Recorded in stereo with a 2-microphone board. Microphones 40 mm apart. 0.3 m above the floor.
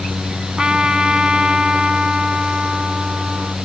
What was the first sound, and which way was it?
A trumpet, 25° right (ahead or behind).